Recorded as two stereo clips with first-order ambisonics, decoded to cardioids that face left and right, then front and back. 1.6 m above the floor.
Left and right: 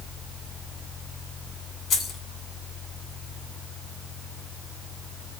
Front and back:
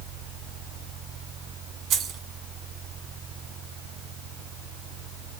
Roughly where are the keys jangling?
Behind left.